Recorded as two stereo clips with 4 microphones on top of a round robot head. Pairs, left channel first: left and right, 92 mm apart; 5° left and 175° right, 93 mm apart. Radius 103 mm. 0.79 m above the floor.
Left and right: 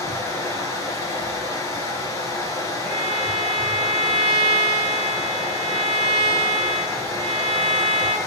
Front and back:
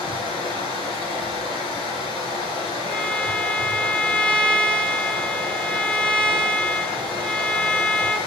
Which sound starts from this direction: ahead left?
Running water, at 0.0 s.